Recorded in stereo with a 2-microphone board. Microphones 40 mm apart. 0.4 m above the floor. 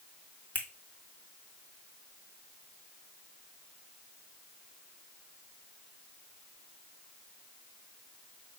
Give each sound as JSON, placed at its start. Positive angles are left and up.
{"t": 0.6, "sound": "a finger snap", "side_deg": 45, "distance_m": 1.7}